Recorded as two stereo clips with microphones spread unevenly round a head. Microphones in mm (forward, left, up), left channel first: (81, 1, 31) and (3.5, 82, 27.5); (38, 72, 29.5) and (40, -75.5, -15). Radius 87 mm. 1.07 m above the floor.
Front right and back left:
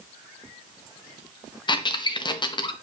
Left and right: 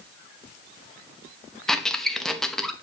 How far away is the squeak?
About 0.9 m.